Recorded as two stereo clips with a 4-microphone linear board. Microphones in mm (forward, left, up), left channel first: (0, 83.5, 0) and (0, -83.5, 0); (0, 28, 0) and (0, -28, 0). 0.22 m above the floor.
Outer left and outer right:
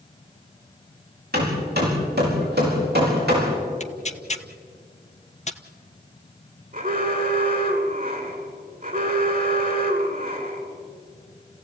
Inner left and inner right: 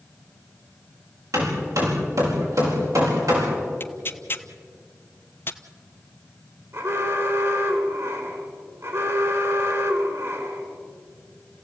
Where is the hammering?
75° right (ahead or behind), 8.5 m.